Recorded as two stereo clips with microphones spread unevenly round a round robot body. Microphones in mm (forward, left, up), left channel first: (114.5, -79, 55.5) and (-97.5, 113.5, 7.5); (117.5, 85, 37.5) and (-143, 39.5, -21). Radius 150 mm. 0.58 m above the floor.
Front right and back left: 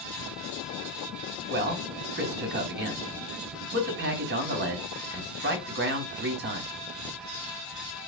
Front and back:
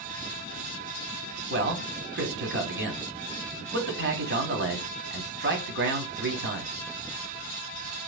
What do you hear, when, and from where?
1.5 s a man speaking: 170° left, 1.8 m